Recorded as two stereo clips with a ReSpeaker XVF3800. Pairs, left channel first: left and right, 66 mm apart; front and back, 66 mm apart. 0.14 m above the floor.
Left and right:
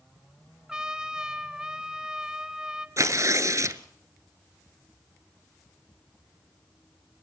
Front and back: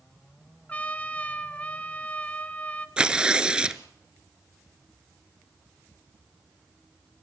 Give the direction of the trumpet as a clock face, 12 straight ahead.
1 o'clock.